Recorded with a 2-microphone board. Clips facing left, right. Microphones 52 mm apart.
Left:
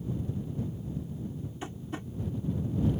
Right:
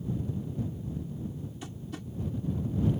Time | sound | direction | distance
1.6 | tapping | 30° left (ahead or behind) | ?